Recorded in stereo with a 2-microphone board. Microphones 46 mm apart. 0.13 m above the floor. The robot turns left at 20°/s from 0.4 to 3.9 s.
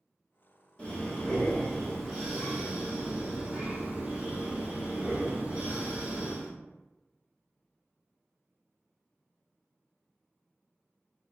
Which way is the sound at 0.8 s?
25° left.